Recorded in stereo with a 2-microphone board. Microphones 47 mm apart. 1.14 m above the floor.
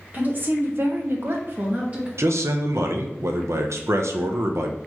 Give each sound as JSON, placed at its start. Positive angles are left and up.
{"t": 0.1, "sound": "a woman speaking", "side_deg": -35, "distance_m": 1.2}
{"t": 2.2, "sound": "a man speaking", "side_deg": -75, "distance_m": 0.6}